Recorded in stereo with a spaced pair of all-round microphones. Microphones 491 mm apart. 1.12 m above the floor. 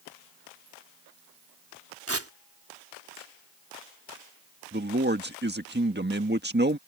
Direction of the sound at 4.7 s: 20° right (ahead or behind).